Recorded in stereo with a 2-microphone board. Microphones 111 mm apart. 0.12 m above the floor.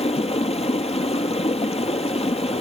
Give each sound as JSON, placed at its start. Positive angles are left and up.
{"t": 0.0, "sound": "running water", "side_deg": 70, "distance_m": 1.3}